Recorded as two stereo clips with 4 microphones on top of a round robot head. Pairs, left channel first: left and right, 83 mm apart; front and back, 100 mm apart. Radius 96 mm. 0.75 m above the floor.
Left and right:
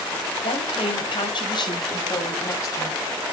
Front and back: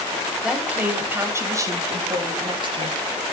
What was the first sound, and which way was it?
A woman speaking, 95° left.